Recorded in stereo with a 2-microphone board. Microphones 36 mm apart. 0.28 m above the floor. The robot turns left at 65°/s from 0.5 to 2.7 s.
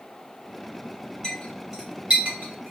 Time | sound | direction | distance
1.2 | a clink | 20° left (ahead or behind) | 1.7 m